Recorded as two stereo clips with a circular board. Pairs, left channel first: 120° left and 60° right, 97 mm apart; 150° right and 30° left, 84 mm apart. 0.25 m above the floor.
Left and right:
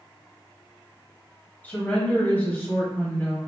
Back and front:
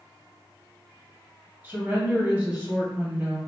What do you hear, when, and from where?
1.6 s a woman speaking: 70° left, 1.5 m